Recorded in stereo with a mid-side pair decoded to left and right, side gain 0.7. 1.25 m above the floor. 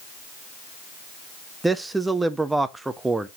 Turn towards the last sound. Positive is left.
turn(degrees=-10)